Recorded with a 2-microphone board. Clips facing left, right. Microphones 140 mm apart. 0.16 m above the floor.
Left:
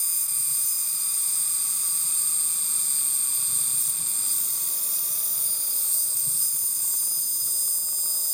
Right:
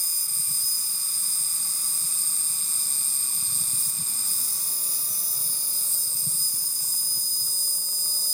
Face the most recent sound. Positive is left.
turn(degrees=-35)  # may be behind; listen again after turning